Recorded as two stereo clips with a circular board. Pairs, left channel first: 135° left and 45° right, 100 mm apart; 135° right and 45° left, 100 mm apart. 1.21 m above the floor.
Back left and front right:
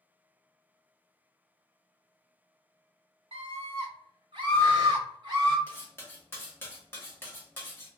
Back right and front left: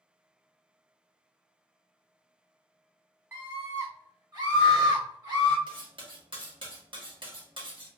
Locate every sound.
3.3 s a scream: 20° right, 1.5 m; by 5.6 s straight ahead, 3 m
5.7 s cutlery clinking: 70° left, 1.2 m